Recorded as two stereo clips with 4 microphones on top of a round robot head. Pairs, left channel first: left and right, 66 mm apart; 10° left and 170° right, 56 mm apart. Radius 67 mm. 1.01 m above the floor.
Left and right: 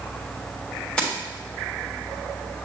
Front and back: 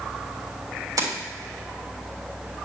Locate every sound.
1.0 s keys jangling: 170° left, 3.5 m